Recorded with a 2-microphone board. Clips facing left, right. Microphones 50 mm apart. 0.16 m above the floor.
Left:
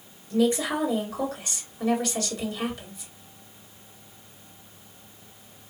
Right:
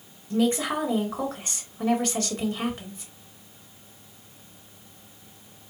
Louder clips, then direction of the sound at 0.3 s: Left 1 dB; 35° right (ahead or behind).